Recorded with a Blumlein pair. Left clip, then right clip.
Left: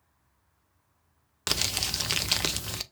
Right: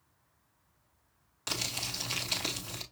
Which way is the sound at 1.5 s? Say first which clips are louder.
Left 6 dB; 55° left.